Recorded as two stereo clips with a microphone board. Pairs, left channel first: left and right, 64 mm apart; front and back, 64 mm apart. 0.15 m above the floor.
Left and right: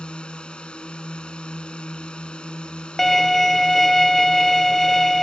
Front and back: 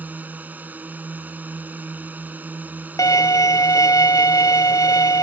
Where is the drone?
150° left.